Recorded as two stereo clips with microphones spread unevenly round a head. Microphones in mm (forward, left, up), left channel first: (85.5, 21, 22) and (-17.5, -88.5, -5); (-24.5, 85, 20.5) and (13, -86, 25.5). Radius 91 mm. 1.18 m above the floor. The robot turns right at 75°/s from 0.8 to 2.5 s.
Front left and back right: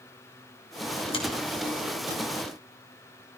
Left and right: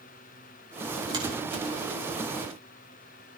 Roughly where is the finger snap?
Ahead.